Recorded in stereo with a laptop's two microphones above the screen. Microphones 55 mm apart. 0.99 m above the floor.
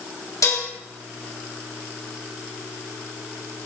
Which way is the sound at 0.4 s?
80° left.